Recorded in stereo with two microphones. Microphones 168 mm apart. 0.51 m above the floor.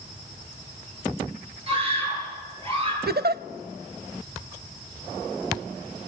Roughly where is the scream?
Right.